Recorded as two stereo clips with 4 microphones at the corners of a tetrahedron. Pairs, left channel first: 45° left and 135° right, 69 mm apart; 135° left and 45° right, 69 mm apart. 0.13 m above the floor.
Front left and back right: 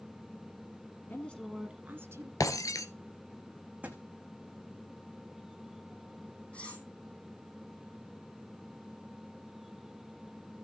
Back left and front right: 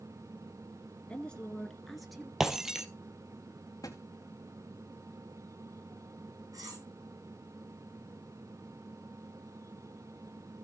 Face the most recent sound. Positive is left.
turn(degrees=-25)